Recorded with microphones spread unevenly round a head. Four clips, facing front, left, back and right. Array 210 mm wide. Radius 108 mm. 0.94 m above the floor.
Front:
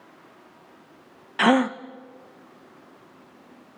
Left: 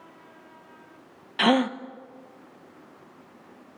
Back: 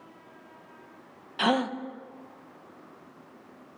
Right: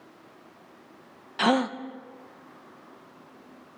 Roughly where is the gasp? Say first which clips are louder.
Left 2 dB, front 6 dB; ahead left.